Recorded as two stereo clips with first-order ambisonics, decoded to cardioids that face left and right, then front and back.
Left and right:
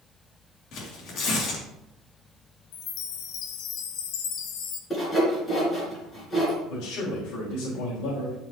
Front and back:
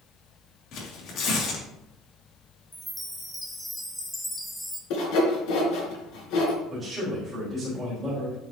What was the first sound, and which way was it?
Tearing paper, 45° left.